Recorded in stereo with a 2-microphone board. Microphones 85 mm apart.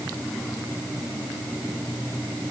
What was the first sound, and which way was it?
Only background noise.